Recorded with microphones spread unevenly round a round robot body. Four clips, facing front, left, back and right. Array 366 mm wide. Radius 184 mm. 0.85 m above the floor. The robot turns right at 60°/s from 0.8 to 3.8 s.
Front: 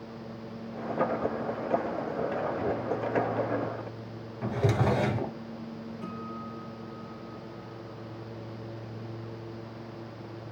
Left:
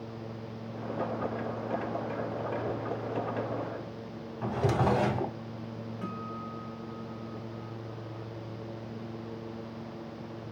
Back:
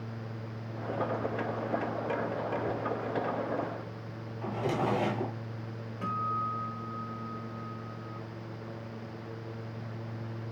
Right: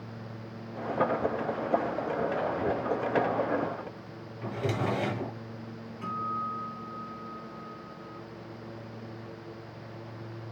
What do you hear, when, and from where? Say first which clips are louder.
4.4 s a drawer: left 3 dB, front 3 dB; 20° left, 1.4 m
6.0 s a guitar: right 8 dB, back 10 dB; 165° left, 4.5 m